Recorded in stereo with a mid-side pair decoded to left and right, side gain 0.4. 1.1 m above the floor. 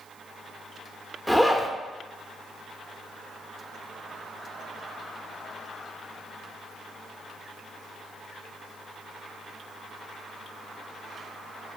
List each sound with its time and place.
1.3 s a zipper: straight ahead, 0.8 m